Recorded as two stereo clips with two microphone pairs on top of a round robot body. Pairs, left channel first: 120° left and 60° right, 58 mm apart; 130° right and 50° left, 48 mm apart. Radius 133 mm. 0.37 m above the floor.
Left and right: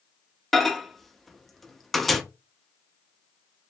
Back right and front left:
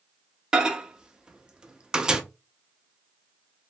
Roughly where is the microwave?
Ahead left.